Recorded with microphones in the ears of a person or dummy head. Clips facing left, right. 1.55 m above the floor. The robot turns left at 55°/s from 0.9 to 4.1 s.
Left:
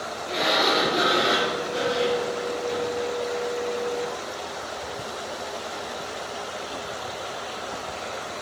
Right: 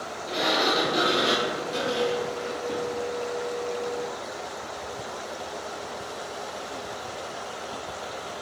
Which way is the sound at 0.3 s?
20° right.